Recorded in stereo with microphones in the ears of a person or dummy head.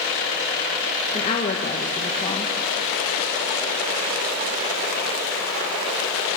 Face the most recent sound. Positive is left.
turn(degrees=30)  # may be behind; listen again after turning